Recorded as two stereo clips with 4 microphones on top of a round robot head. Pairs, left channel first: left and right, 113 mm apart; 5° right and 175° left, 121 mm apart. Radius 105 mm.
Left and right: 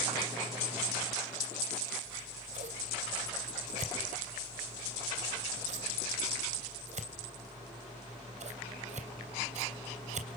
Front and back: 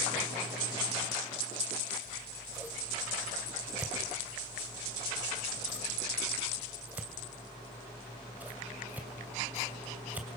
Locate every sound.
2.0 s scissors: 110° right, 3 m